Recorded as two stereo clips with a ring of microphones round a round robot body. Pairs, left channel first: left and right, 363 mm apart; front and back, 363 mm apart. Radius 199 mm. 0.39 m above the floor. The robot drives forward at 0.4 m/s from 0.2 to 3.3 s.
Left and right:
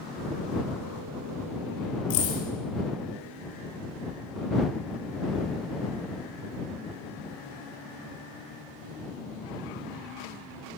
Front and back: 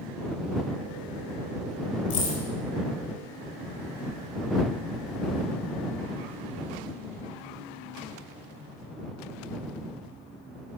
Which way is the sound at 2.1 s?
75° left.